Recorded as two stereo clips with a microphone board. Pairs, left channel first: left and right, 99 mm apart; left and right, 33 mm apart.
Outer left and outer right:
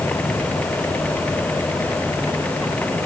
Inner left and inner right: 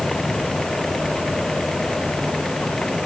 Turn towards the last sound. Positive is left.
No sound to turn to.